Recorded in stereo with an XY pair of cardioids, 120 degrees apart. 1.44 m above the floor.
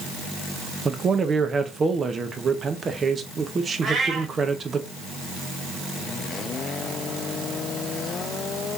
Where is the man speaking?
30° right, 0.9 m.